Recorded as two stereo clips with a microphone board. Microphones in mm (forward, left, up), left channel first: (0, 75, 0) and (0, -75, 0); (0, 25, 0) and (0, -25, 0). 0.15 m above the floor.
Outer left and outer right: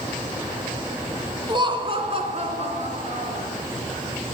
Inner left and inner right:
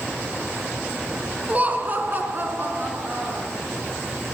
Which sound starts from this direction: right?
Laughter, at 1.5 s.